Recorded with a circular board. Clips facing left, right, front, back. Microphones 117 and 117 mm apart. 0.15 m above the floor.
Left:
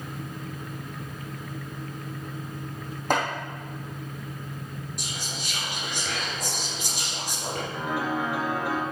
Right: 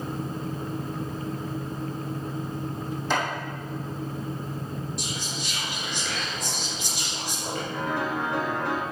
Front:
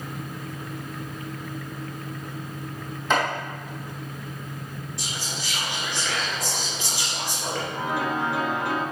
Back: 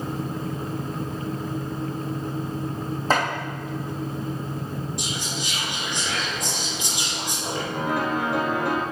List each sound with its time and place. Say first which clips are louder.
3.1 s chopping: left 2 dB, back 1 dB; 125° left, 3 m
5.0 s whispering: right 3 dB, back 4 dB; 110° left, 2 m
7.7 s a piano: even, back 3 dB; 170° left, 1.5 m